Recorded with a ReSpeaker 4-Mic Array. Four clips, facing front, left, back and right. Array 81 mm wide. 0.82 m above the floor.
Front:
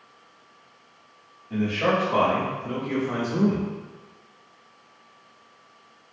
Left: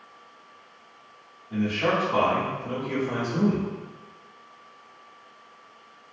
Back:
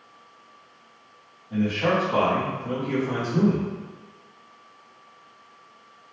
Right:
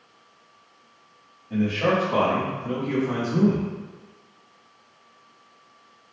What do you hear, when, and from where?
1.5 s a man speaking: 50° right, 1.3 m; by 3.7 s 125° right, 1.3 m